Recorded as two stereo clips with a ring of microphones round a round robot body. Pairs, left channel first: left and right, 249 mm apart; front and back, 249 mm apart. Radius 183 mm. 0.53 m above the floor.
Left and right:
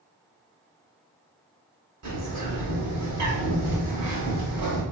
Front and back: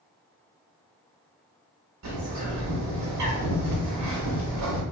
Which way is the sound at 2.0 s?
140° right.